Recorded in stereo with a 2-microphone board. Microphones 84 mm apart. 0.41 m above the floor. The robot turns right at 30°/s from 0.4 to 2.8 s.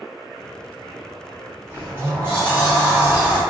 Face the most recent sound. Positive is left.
turn(degrees=-35)